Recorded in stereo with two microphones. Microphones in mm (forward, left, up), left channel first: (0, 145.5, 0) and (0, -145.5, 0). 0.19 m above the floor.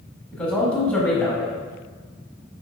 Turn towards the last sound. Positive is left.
turn(degrees=5)  # may be behind; listen again after turning